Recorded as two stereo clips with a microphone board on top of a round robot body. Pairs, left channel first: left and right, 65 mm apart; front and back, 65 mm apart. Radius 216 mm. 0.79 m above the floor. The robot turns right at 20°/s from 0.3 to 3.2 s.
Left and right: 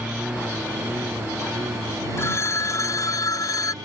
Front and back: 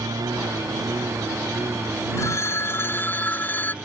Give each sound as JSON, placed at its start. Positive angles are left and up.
{"t": 0.0, "sound": "a lawn mower", "azimuth_deg": -165}
{"t": 2.2, "sound": "a phone ringing", "azimuth_deg": 45}